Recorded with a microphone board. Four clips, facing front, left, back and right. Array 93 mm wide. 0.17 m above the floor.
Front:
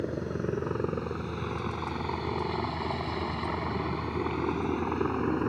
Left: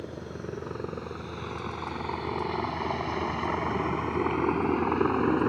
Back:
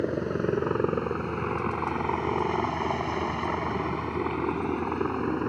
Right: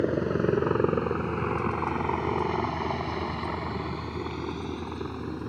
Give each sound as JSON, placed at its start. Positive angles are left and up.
{"t": 0.0, "sound": "a helicopter", "azimuth_deg": -120}